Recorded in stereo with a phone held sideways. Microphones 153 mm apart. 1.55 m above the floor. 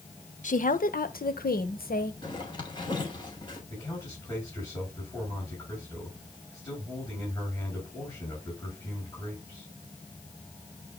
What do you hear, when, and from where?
0.4 s a woman speaking: 55° left (ahead or behind), 0.9 m; by 2.1 s 70° left (ahead or behind), 1.3 m
2.2 s a zipper: 30° left (ahead or behind), 4 m
3.7 s a man speaking: 20° left (ahead or behind), 7.5 m